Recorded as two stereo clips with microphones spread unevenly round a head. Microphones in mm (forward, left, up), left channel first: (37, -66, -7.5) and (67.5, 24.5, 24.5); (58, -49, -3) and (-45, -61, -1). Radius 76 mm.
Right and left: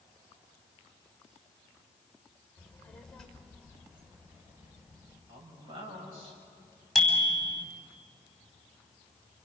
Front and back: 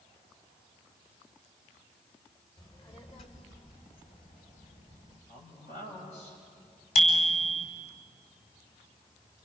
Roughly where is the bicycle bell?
Ahead.